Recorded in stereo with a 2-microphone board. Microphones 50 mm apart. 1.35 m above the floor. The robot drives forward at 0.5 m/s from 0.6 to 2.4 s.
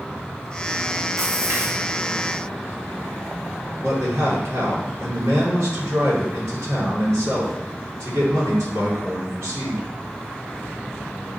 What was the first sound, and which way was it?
A splash, 75° right (ahead or behind).